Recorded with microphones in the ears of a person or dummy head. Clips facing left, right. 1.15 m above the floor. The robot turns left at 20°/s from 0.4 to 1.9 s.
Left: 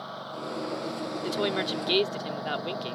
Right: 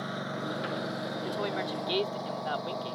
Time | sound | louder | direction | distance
0.0 | a lawn mower | right 2 dB | 25° right (ahead or behind) | ?
1.2 | a woman speaking | left 5 dB | 50° left (ahead or behind) | ?